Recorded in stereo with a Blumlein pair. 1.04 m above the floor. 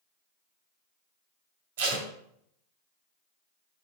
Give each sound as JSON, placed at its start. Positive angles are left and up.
{"t": 1.8, "sound": "tape being pulled", "azimuth_deg": -55, "distance_m": 1.9}